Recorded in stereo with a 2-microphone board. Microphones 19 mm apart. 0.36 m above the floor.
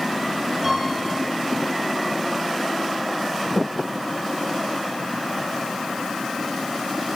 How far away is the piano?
About 5.5 m.